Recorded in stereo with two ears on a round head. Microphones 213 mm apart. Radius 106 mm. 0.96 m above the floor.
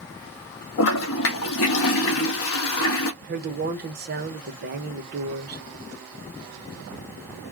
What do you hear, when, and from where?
0.8 s a toilet flushing: 60° left (ahead or behind), 0.6 m
3.2 s a woman speaking: 40° right (ahead or behind), 0.9 m